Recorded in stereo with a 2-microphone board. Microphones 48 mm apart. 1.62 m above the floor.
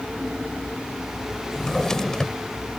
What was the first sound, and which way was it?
A drawer, 10° left (ahead or behind).